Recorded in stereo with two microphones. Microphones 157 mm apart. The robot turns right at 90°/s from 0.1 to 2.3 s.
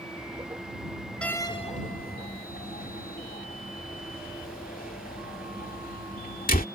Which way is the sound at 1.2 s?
5° left (ahead or behind).